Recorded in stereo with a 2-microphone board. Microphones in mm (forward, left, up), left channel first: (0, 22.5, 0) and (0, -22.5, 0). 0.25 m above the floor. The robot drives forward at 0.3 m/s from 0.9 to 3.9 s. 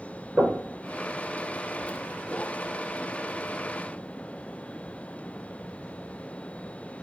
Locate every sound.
0.4 s knocking: 30° right (ahead or behind), 2.5 m